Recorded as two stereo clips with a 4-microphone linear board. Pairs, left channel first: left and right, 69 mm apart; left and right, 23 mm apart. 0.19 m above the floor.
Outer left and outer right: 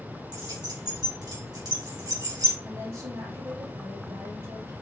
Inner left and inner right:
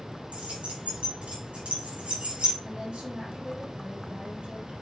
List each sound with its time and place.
0.3 s keys jangling: 75° right (ahead or behind), 3.5 m
2.6 s a woman speaking: 60° right (ahead or behind), 3 m